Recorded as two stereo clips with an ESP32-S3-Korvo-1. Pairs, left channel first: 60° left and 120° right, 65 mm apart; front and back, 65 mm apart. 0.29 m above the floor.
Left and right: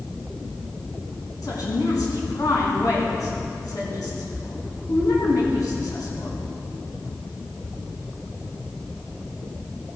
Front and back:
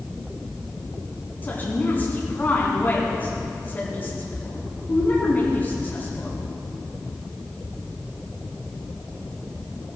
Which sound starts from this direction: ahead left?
A woman speaking, at 1.4 s.